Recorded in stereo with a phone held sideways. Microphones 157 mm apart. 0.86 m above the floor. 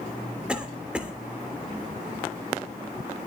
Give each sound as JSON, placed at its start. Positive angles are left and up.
{"t": 0.5, "sound": "a cough", "side_deg": -5, "distance_m": 3.0}